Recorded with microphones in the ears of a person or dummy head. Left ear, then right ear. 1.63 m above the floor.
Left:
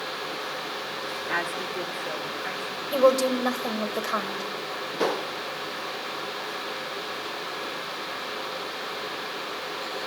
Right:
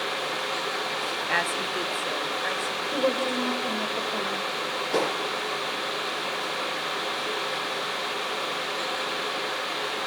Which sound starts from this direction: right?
A woman speaking, at 1.3 s.